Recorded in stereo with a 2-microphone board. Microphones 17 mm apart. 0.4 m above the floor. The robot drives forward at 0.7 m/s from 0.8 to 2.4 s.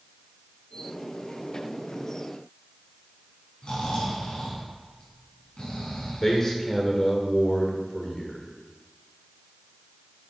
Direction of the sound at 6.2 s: 25° left (ahead or behind).